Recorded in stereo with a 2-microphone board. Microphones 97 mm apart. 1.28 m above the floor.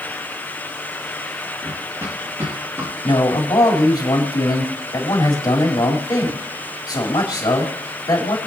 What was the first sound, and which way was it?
Running footsteps, 35° right (ahead or behind).